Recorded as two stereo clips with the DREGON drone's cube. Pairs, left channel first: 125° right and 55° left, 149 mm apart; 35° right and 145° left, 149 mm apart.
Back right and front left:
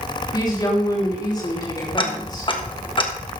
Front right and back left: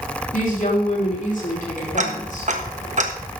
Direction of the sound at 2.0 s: Straight behind.